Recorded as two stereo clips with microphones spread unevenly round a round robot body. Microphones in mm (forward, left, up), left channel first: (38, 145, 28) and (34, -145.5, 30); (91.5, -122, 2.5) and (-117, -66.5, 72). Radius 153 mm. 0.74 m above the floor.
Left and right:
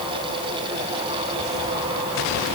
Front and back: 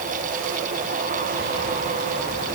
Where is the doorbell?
No doorbell in this recording.